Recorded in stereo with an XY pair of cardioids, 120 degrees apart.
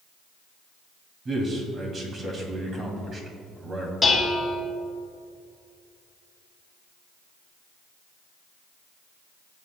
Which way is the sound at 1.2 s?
35° right.